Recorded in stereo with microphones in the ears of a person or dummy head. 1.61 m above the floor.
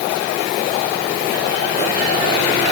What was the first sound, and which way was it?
Only background noise.